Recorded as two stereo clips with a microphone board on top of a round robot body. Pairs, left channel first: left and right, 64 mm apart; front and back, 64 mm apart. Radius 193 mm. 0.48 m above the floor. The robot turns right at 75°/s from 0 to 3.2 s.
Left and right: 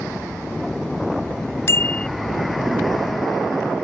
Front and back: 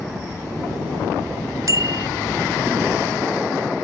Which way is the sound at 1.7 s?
140° left.